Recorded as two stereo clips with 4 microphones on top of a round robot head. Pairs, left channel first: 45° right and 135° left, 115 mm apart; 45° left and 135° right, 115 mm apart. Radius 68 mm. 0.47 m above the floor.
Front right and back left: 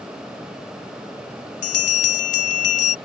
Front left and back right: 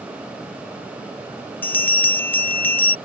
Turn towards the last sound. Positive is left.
turn(degrees=-30)